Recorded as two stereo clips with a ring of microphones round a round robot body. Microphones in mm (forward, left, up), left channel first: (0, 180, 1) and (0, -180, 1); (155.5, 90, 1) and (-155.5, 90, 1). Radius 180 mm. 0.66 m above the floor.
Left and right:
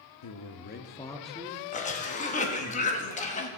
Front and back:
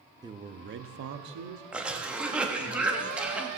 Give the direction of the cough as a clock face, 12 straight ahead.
9 o'clock.